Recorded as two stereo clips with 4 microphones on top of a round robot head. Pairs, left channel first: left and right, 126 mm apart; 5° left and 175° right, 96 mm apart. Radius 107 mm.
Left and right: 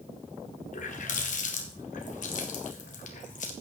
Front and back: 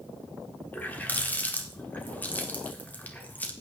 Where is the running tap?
75° left, 1.8 m.